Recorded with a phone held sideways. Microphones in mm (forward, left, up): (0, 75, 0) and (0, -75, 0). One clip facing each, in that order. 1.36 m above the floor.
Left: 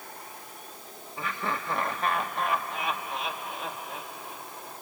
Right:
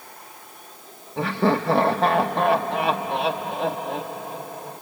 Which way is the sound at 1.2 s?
75° right (ahead or behind).